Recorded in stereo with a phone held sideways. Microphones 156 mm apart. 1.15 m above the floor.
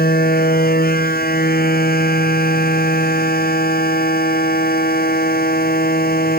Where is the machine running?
75° left (ahead or behind).